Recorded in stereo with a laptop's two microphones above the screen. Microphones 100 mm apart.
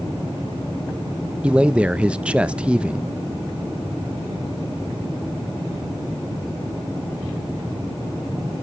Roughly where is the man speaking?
Centre.